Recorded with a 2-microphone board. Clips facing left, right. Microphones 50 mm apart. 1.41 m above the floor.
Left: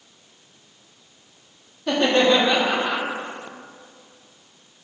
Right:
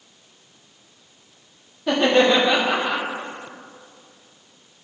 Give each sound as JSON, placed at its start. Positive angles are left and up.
{"t": 1.9, "sound": "laughter", "side_deg": -10, "distance_m": 1.3}